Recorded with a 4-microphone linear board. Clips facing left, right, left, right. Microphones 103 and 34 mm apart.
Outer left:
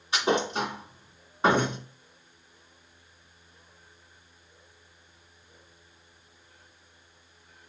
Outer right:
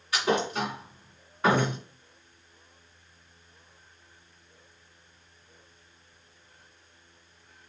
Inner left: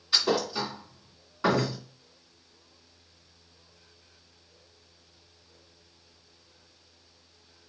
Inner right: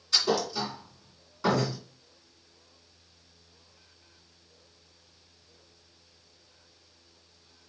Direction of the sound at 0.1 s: 25° left (ahead or behind).